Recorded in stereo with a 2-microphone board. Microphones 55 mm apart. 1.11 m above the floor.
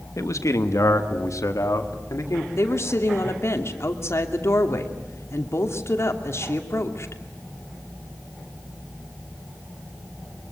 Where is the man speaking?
70° left (ahead or behind), 1.3 m; by 2.5 s 65° left (ahead or behind), 2.5 m.